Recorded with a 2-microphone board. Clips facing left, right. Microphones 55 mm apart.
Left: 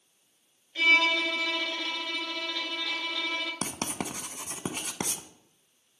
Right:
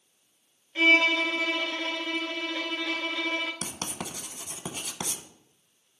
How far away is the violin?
About 1.1 m.